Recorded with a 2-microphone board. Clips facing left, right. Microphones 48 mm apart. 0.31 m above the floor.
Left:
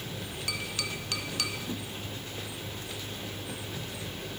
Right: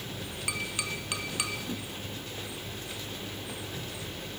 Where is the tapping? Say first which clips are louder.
Right 2 dB; 20° right (ahead or behind), 1.2 m.